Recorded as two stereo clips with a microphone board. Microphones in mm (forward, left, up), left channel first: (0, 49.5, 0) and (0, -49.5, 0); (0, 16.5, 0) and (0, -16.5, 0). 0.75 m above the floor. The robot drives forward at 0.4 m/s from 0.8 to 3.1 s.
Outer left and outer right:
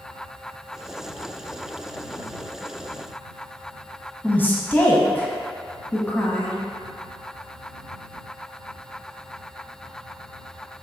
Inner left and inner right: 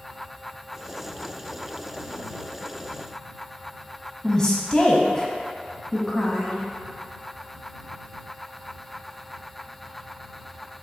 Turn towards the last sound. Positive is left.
turn(degrees=20)  # may be behind; listen again after turning